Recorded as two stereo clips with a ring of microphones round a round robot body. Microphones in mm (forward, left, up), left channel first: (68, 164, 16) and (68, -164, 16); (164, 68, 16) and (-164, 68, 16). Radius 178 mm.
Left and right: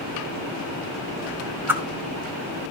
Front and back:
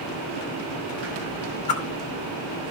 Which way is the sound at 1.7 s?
5° right.